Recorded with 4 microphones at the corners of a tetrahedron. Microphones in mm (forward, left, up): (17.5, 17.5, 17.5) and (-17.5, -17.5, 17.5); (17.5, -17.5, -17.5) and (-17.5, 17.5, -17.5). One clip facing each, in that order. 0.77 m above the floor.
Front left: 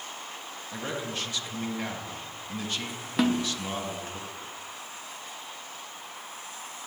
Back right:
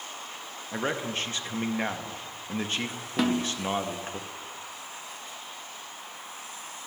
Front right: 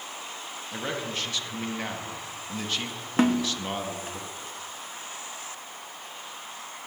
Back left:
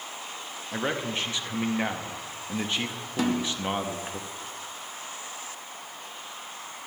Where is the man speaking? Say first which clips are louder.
Back right 4 dB, back left 3 dB; 170° right, 0.9 m.